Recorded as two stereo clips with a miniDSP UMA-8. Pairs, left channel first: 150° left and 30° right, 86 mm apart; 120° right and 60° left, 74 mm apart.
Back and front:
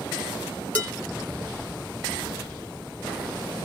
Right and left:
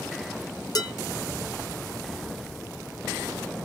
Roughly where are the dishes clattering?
Behind right.